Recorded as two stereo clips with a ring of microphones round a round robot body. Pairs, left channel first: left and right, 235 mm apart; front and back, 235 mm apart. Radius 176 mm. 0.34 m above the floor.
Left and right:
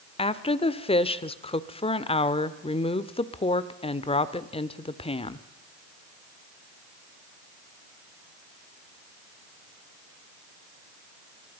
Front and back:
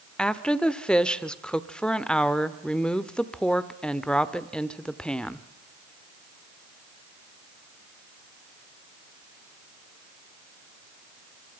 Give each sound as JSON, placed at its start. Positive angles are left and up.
{"t": 0.2, "sound": "a woman speaking", "azimuth_deg": 80, "distance_m": 1.1}